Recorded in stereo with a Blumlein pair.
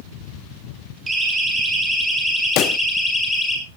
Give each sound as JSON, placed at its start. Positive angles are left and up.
{"t": 1.1, "sound": "a siren", "azimuth_deg": -15, "distance_m": 7.0}
{"t": 2.6, "sound": "a pop", "azimuth_deg": 35, "distance_m": 0.5}